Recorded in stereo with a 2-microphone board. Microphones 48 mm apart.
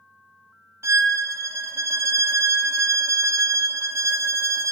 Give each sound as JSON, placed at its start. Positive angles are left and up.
{"t": 0.8, "sound": "a violin", "side_deg": -75, "distance_m": 0.5}